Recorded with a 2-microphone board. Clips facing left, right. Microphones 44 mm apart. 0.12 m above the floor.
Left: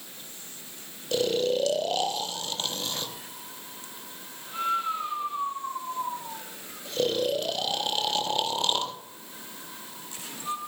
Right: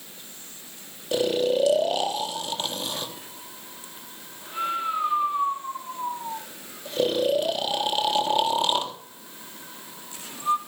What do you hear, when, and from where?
1.1 s snoring: 15° right (ahead or behind), 1.1 m